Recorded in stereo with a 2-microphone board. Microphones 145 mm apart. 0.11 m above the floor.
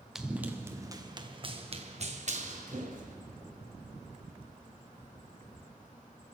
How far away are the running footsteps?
About 1.5 m.